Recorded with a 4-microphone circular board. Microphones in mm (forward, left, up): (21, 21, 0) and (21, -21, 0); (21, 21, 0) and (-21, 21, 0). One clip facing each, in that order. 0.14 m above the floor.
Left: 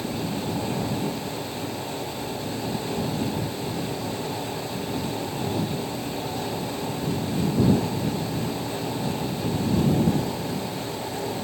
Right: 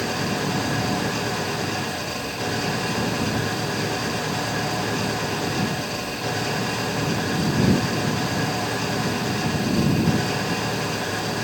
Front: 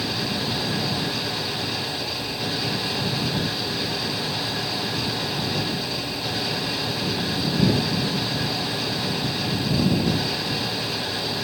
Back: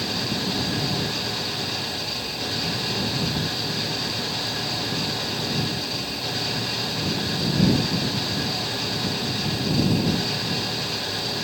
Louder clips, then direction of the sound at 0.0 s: Right 4 dB, front 1 dB; 85° right.